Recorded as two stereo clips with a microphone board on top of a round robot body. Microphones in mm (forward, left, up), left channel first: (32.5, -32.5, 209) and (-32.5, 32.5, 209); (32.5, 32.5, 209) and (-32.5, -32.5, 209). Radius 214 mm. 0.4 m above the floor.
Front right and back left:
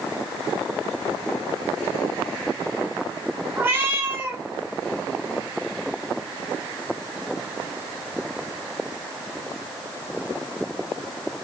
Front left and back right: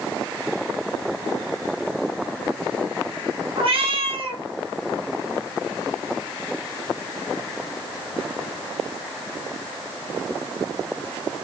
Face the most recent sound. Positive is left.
turn(degrees=-155)